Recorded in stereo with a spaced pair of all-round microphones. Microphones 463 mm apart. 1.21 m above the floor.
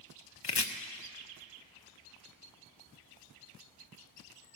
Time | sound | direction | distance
0.4 | chopping | 55° left (ahead or behind) | 0.7 m